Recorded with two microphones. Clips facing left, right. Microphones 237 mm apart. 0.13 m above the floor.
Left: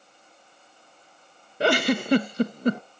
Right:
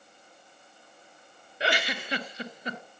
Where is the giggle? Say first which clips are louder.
Left 10 dB; 50° left (ahead or behind), 0.6 m.